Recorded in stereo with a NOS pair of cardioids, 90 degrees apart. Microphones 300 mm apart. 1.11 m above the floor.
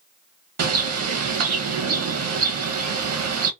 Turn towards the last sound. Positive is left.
turn(degrees=-55)